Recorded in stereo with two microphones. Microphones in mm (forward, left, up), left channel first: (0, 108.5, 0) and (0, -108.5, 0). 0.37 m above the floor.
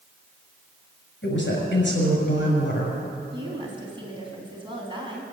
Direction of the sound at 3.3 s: 20° right (ahead or behind).